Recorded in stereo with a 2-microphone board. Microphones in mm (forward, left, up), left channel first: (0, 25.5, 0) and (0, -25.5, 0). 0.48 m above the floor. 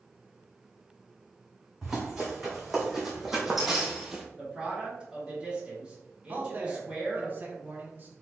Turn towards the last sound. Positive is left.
turn(degrees=-35)  # may be behind; listen again after turning